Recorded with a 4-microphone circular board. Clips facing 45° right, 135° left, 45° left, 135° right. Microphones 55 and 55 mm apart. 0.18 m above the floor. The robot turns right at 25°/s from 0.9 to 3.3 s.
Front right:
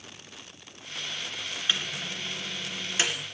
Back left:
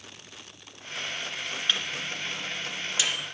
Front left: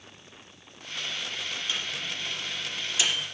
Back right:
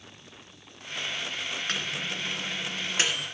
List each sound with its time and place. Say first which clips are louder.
1.7 s a microwave: even, back right 2 dB; 125° right, 2.5 m; by 3.2 s 90° right, 2.5 m